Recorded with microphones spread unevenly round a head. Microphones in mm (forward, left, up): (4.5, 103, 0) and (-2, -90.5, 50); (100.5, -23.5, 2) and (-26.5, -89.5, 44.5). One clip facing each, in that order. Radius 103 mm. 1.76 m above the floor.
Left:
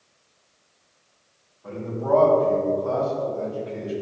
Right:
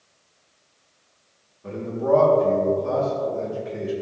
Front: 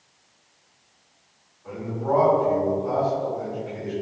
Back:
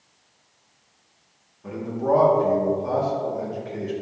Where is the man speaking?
150° right, 3.5 m.